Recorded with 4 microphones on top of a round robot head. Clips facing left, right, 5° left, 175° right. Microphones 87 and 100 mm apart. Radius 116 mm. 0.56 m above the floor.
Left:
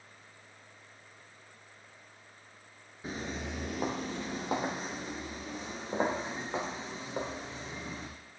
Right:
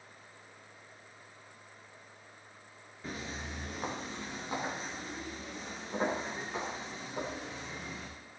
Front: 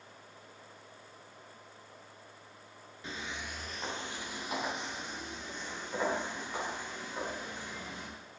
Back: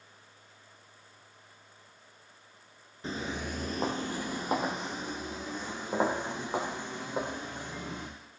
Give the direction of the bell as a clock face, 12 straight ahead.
No bell in this recording.